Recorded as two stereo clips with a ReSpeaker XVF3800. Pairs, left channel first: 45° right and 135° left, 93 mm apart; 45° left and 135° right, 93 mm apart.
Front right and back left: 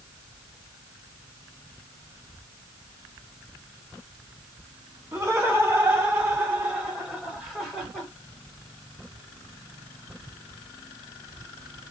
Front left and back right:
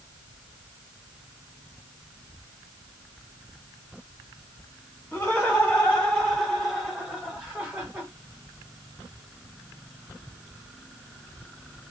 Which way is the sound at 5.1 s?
100° left.